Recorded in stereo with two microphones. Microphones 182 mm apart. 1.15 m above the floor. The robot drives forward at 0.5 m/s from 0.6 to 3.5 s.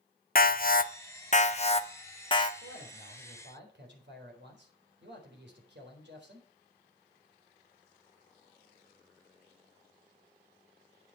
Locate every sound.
0.3 s an alarm: 55° left (ahead or behind), 0.6 m; by 2.5 s 25° left (ahead or behind), 1.2 m
2.6 s a man speaking: 80° right, 4 m; by 6.5 s 75° right (ahead or behind), 4 m